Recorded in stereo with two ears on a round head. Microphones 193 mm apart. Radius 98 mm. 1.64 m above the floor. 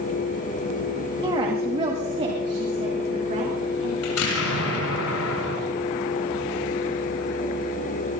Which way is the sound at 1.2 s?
25° right (ahead or behind).